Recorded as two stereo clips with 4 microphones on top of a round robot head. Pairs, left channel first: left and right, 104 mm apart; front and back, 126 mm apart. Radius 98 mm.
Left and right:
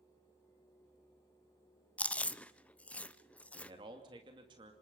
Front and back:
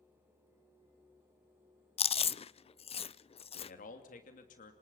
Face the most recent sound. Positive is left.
turn(degrees=-35)